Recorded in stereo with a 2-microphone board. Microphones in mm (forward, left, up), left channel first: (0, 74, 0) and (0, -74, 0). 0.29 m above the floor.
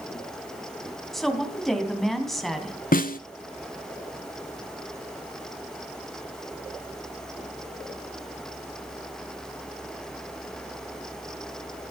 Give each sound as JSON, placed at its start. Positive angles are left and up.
{"t": 1.1, "sound": "a woman speaking", "side_deg": 0, "distance_m": 2.5}
{"t": 2.9, "sound": "a snare drum", "side_deg": 70, "distance_m": 0.8}